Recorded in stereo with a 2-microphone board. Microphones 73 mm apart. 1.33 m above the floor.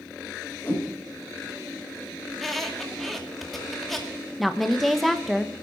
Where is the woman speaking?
Centre (ahead or behind), 1.0 m.